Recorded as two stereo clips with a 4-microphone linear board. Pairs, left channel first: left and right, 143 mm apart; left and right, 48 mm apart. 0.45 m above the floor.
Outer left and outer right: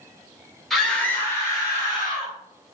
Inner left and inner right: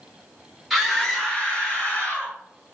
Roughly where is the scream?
Centre.